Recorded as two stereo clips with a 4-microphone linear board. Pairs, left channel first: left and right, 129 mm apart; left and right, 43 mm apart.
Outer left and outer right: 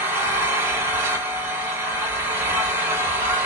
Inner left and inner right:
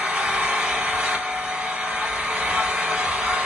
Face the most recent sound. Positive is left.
turn(degrees=-15)  # may be behind; listen again after turning